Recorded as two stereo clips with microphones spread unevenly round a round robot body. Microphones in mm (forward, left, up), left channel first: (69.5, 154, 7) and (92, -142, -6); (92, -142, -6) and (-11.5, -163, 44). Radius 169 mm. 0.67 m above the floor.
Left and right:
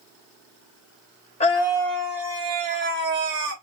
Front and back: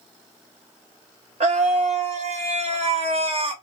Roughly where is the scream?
Behind left.